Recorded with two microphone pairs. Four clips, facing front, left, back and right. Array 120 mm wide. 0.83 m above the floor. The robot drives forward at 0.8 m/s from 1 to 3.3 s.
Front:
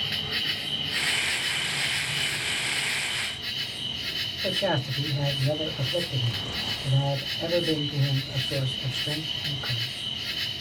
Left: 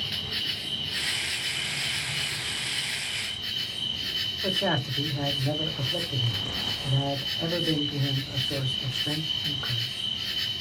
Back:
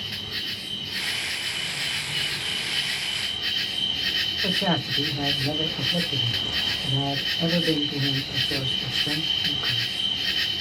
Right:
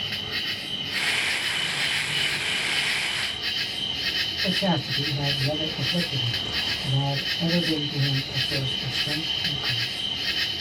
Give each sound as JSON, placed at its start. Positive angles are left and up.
{"t": 0.0, "sound": "an insect", "azimuth_deg": -35, "distance_m": 1.4}
{"t": 4.4, "sound": "a man speaking", "azimuth_deg": 145, "distance_m": 3.5}